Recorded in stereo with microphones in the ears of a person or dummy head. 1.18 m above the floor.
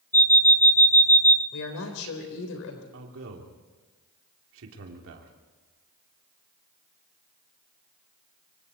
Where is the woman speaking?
70° left (ahead or behind), 4 m.